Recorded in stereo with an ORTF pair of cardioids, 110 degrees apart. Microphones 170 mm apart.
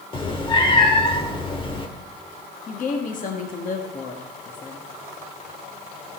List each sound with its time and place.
0.1 s a cat meowing: 30° left, 1.3 m
2.7 s a woman speaking: 50° left, 1.4 m